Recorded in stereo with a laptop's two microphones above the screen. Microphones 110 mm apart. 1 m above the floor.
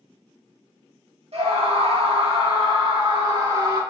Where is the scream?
65° right (ahead or behind), 2.0 m; by 3.8 s 40° right (ahead or behind), 2.0 m.